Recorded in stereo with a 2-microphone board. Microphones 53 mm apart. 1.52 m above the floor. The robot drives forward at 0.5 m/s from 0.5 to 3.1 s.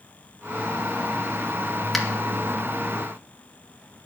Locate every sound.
1.9 s a finger snap: 5° left (ahead or behind), 2.5 m